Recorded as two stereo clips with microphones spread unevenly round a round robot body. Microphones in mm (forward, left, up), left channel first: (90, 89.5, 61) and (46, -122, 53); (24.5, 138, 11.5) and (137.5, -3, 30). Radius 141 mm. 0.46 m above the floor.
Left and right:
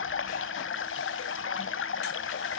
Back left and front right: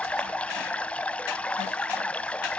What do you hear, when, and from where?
0.0 s running water: 45° left, 0.9 m